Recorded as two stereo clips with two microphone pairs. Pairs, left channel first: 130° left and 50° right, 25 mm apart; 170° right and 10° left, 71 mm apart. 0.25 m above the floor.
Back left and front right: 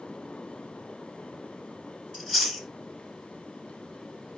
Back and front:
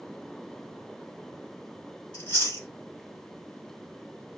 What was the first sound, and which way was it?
Chewing, 150° right.